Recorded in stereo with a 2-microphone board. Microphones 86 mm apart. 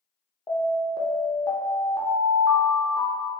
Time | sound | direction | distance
0.5 | an alarm | 50° left (ahead or behind) | 0.6 m